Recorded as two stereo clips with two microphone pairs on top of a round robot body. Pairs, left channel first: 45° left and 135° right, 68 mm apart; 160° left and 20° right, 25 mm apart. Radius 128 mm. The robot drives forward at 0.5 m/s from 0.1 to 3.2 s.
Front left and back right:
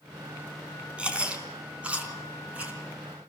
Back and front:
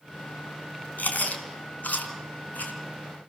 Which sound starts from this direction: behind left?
Chewing, at 1.0 s.